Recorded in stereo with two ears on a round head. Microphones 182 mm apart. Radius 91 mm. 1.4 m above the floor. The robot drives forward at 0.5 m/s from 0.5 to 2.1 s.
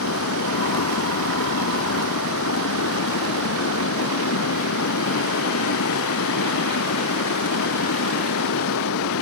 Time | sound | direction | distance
0.0 | running water | 80° left | ?